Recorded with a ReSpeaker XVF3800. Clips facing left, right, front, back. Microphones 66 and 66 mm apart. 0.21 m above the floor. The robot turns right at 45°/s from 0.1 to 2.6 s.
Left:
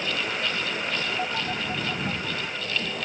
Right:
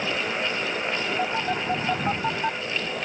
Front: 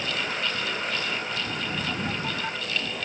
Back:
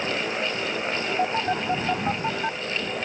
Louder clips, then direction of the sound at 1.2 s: Right 3 dB, back 7 dB; 170° right.